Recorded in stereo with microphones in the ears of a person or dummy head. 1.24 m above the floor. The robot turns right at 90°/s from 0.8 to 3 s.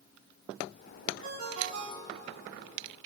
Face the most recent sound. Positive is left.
turn(degrees=20)